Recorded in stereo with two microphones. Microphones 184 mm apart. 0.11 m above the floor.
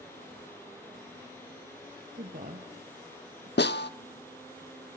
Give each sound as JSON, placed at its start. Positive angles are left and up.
{"t": 2.1, "sound": "a woman speaking", "side_deg": -50, "distance_m": 2.0}
{"t": 3.6, "sound": "a snare drum", "side_deg": 70, "distance_m": 0.6}